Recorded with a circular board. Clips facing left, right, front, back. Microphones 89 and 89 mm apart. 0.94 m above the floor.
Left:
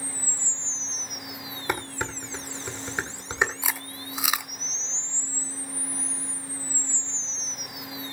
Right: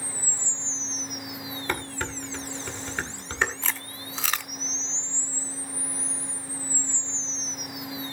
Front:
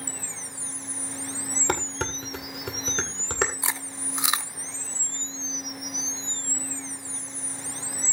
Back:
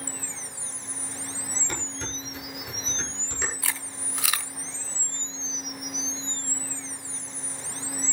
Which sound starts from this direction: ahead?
Dishes clattering, at 1.7 s.